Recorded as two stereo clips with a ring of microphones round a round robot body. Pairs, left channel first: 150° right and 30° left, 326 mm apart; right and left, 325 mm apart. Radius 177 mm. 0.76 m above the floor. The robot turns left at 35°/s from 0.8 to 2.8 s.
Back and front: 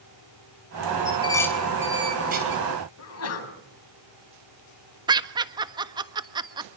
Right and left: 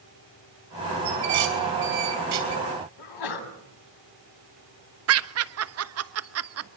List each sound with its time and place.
1.1 s dishes clattering: 140° left, 5.5 m; by 2.6 s 85° left, 5.5 m
3.0 s a sneeze: 105° right, 6 m
5.1 s laughter: 105° left, 1.4 m